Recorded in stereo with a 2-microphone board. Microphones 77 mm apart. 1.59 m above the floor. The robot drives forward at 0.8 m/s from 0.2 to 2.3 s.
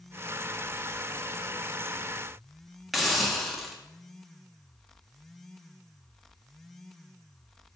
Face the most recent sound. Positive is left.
turn(degrees=0)  # may be behind; listen again after turning